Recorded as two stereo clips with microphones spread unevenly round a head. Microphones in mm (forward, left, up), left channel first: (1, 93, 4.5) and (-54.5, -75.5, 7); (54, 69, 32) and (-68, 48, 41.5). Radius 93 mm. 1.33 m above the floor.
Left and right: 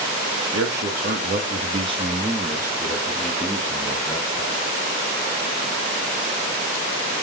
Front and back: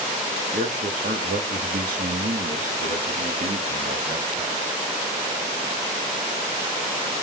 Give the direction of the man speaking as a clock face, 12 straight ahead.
4 o'clock.